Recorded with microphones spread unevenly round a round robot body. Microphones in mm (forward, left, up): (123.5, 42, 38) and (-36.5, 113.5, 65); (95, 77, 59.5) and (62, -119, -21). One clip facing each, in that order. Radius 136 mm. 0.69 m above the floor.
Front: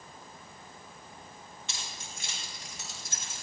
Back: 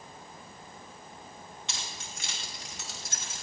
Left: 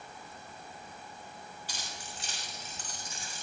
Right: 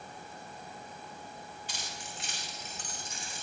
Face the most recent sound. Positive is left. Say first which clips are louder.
# back 1 dB, right 1 dB
turn(degrees=145)